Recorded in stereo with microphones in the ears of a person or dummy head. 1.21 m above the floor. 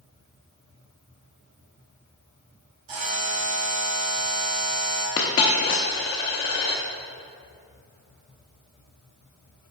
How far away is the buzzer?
About 1.9 m.